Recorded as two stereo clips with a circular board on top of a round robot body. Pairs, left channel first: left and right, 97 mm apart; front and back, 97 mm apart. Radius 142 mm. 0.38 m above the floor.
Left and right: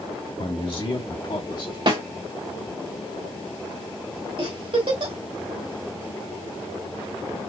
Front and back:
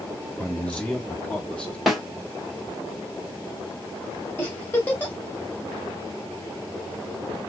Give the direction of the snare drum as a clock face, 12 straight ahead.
3 o'clock.